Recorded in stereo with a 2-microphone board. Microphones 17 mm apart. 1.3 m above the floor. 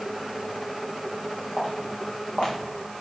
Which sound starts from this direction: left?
Footsteps, at 1.6 s.